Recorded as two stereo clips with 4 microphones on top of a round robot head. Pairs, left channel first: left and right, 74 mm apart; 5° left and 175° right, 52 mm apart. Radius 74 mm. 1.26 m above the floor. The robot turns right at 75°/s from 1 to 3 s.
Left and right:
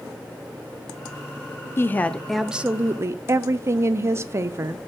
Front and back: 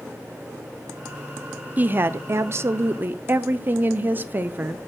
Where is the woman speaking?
135° left, 0.5 m; by 4.8 s 130° right, 0.5 m.